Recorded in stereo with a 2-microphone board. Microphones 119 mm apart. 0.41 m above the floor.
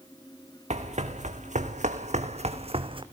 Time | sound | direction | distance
0.7 | running footsteps | 70° right (ahead or behind) | 2.5 m